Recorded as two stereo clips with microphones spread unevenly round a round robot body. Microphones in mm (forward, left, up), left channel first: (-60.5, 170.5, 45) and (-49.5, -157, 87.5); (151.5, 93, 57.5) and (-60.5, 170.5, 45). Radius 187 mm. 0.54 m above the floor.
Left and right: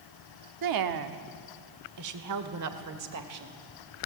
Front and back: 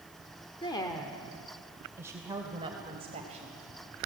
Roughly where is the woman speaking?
Right.